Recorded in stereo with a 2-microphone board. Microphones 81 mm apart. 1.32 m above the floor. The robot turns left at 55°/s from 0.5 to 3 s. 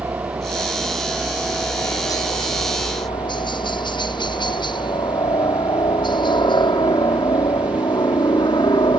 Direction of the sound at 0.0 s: 35° right (ahead or behind).